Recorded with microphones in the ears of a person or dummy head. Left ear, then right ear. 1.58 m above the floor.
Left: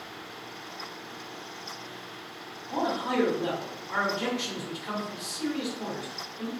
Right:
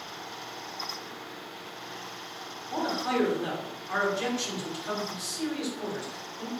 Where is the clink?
No clink in this recording.